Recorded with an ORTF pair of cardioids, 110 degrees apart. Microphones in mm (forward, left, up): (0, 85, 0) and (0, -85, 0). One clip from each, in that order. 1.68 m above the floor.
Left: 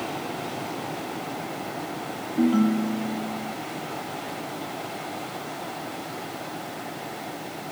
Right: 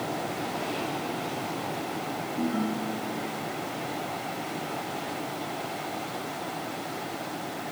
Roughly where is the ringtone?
Ahead left.